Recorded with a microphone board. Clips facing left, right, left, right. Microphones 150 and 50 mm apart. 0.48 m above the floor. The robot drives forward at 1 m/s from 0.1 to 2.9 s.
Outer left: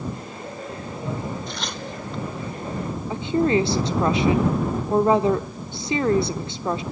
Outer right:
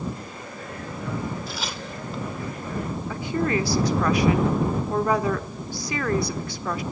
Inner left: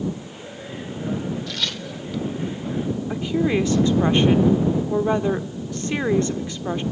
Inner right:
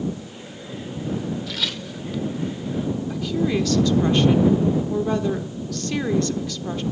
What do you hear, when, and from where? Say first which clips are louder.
1.5 s tearing paper: outer left 1 dB, even; 5° right (ahead or behind), 0.9 m
3.1 s a woman speaking: outer left 5 dB, inner left 3 dB; 25° left (ahead or behind), 0.9 m